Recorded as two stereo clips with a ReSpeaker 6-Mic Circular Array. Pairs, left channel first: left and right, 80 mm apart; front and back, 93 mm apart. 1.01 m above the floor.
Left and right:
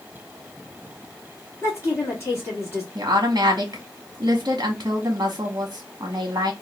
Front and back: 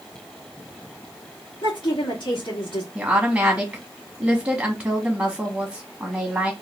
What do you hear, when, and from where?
1.6 s a woman speaking: 35° left, 1.6 m
3.0 s a woman speaking: 120° right, 1.0 m